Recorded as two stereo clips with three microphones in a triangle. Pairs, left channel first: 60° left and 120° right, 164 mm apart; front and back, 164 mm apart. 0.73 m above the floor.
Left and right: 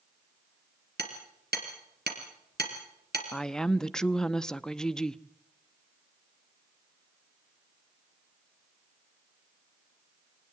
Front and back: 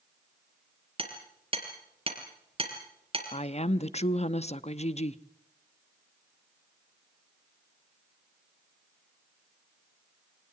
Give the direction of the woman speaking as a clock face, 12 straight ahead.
1 o'clock.